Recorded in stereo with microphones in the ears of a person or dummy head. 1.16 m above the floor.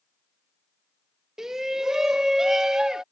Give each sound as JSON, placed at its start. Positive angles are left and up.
{"t": 1.4, "sound": "a shout", "side_deg": 0}